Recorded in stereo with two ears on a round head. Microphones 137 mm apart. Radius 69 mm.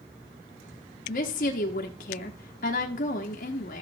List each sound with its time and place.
1.1 s a woman speaking: 65° left (ahead or behind), 1.0 m